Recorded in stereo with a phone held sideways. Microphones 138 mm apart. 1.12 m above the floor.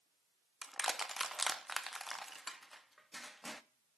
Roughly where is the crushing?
Centre.